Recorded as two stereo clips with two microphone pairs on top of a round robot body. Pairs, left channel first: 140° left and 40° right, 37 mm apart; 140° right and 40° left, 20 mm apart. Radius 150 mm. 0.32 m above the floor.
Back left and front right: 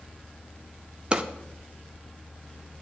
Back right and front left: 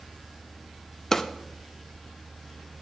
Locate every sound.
1.1 s a drawer: 95° right, 0.8 m